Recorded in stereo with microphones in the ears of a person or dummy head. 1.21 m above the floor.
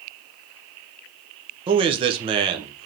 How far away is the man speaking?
About 0.6 m.